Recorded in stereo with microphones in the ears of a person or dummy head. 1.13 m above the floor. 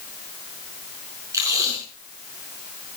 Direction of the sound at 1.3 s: 15° right (ahead or behind).